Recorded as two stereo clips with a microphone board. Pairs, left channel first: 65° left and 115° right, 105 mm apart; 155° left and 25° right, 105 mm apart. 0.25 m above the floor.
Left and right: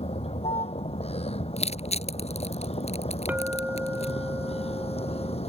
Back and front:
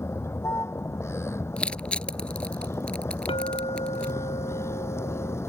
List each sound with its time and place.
0.0 s a vehicle: 90° left
1.6 s crushing: 80° left
3.3 s a clink: 175° left